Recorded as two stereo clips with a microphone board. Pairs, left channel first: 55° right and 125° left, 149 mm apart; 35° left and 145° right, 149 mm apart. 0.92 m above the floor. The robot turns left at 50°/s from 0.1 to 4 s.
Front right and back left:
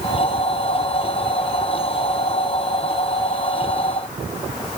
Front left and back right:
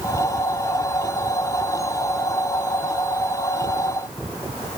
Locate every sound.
Only background noise.